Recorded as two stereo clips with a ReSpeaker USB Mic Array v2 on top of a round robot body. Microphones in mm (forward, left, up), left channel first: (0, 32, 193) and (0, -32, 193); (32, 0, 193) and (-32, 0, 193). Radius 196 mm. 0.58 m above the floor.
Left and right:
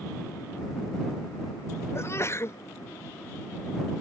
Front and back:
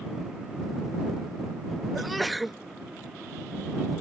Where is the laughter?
I don't hear laughter.